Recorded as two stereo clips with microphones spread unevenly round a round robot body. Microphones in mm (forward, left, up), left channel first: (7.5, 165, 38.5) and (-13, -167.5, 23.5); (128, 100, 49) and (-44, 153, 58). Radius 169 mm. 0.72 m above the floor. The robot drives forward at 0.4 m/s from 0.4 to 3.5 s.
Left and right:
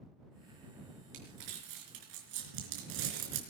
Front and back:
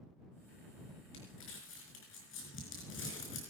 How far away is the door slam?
I don't hear a door slam.